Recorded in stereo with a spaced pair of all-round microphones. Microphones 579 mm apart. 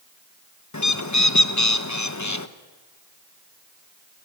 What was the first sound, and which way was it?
A bird, 30° left (ahead or behind).